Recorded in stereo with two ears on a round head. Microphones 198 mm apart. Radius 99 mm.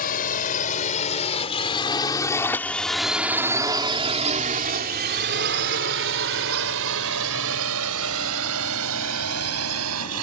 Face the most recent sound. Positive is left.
turn(degrees=-80)